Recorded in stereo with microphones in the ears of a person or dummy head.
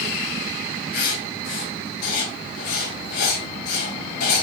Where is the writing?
65° left (ahead or behind), 2.5 m.